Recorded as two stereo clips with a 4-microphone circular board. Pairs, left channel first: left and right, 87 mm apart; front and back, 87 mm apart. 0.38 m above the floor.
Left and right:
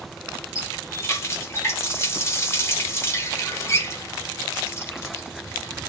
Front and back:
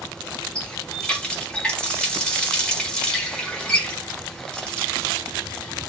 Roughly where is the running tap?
Left.